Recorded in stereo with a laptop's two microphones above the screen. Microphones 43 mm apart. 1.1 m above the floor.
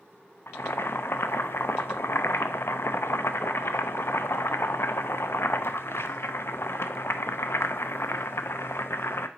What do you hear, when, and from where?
0.5 s boiling: 65° left (ahead or behind), 0.5 m